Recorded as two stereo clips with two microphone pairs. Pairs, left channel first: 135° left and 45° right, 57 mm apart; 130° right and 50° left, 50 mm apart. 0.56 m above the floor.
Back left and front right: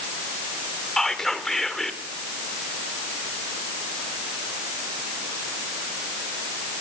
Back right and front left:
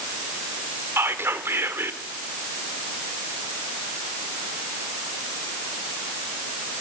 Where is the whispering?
50° left, 2 m.